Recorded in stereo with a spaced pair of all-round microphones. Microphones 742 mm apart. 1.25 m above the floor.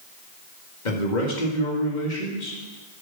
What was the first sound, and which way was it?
A man speaking, 85° left.